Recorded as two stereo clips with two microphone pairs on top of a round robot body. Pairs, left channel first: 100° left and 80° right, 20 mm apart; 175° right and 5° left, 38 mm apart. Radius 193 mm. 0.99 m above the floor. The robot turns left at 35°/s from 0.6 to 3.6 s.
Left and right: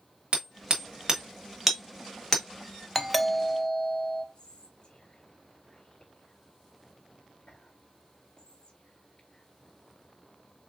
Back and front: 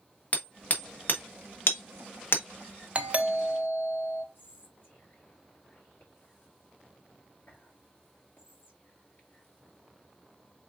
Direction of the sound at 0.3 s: 125° right.